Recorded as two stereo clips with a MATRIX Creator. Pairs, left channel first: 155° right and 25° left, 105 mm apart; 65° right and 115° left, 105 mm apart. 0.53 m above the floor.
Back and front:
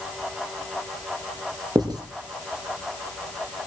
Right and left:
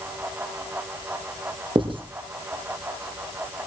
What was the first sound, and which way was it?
Writing, 75° left.